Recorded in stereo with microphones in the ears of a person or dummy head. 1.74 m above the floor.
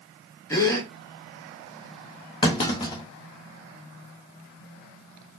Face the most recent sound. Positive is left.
turn(degrees=20)  # may be behind; listen again after turning